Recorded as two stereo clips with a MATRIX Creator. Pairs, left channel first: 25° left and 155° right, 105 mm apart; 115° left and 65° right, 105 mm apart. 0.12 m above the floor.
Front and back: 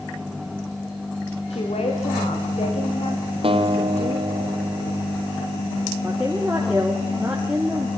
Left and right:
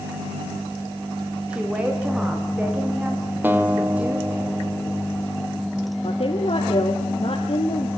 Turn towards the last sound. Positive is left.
turn(degrees=120)